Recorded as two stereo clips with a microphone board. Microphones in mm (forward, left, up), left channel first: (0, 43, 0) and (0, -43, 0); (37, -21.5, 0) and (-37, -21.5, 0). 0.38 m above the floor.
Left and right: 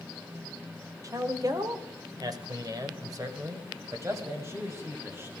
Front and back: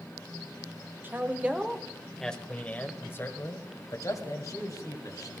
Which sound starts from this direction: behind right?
A man speaking, at 1.0 s.